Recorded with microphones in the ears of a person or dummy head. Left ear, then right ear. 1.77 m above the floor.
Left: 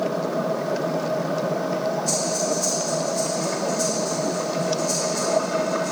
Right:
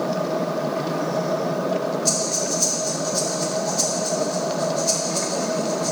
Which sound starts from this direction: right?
Breathing, at 2.0 s.